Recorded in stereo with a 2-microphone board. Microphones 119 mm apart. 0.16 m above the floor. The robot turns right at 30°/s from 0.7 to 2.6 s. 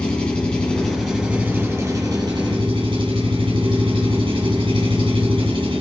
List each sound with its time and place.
0.0 s an engine running: 170° left, 3 m; by 5.8 s 135° right, 3 m